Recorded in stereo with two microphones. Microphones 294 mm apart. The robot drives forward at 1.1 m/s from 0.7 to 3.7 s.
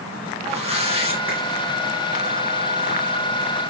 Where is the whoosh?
25° right (ahead or behind), 6.5 m; by 1.4 s 20° right (ahead or behind), 7.5 m.